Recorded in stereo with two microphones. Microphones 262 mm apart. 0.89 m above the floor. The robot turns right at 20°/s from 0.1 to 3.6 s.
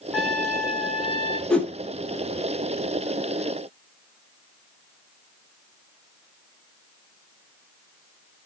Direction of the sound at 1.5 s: 5° left (ahead or behind).